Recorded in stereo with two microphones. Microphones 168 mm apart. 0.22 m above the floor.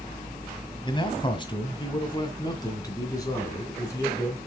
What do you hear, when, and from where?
0.8 s a man speaking: 30° left (ahead or behind), 1.7 m; by 4.4 s 20° left (ahead or behind), 3.5 m